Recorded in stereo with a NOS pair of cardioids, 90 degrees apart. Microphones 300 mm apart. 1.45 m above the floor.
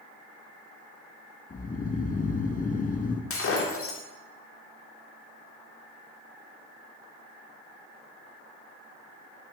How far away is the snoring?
About 1.1 m.